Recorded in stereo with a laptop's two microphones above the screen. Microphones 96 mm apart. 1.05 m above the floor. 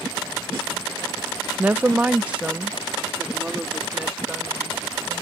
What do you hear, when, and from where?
1.6 s a woman speaking: 15° right (ahead or behind); by 5.2 s 10° right (ahead or behind)